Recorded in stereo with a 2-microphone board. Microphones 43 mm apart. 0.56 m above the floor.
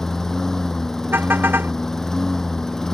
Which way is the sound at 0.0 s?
15° left (ahead or behind).